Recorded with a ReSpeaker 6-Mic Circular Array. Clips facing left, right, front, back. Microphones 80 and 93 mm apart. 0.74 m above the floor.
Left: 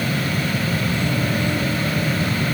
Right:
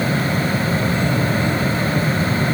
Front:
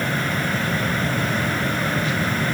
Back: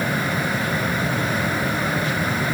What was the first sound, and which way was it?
Only background noise.